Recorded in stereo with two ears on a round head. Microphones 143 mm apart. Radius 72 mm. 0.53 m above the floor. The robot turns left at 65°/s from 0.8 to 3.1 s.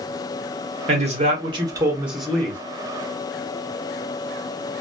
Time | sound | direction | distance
0.9 | a man speaking | 90° right | 1.0 m